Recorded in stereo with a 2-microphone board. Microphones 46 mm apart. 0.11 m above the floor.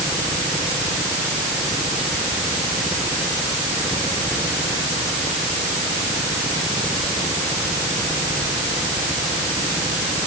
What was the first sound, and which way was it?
Only background noise.